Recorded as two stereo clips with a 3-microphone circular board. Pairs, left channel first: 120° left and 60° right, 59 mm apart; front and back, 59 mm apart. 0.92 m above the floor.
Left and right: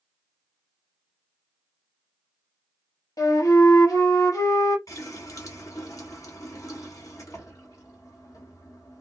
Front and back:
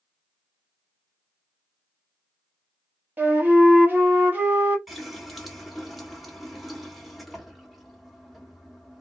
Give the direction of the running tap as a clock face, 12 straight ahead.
9 o'clock.